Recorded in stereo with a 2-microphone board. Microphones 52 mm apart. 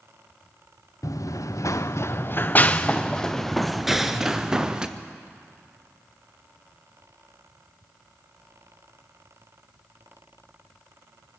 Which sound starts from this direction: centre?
An explosion, at 3.9 s.